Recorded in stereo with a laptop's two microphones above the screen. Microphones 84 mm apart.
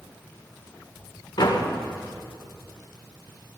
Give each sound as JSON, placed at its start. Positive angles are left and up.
{"t": 1.4, "sound": "a door slam", "side_deg": 60, "distance_m": 2.0}